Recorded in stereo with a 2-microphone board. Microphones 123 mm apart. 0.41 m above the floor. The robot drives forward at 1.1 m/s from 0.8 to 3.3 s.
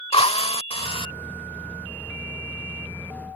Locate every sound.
0.1 s a drill: 55° left (ahead or behind); by 1.1 s 45° left (ahead or behind)